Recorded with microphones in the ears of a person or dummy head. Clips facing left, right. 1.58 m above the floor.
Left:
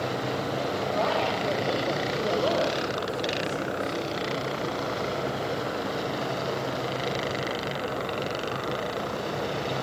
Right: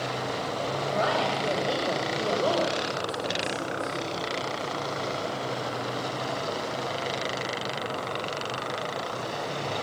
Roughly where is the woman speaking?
Centre.